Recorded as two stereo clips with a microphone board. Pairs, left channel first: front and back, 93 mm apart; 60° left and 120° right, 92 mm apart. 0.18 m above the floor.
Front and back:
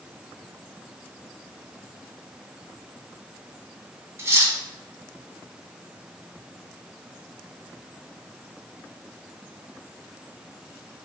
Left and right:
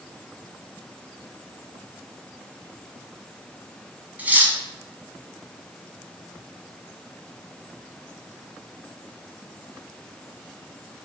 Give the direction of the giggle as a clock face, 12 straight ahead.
No giggle in this recording.